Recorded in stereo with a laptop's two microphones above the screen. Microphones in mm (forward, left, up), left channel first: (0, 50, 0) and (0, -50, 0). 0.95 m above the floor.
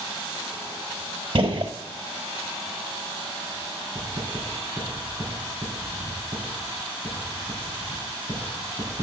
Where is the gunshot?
55° right (ahead or behind), 1.2 m.